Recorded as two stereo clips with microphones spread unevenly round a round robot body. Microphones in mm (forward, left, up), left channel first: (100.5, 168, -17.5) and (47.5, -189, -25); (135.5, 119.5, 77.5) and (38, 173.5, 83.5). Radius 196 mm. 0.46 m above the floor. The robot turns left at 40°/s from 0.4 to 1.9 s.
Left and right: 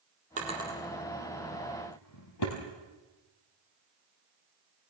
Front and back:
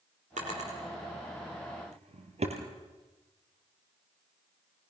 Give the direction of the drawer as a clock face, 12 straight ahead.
6 o'clock.